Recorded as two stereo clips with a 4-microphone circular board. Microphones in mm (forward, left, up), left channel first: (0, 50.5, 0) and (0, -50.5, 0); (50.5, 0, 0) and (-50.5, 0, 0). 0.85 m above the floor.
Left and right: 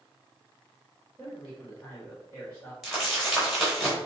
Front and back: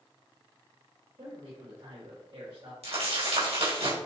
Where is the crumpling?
Straight behind, 3.5 m.